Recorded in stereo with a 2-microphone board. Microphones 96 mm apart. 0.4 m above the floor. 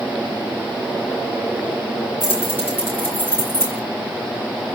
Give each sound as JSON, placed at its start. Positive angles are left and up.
{"t": 2.2, "sound": "keys jangling", "side_deg": -15, "distance_m": 3.5}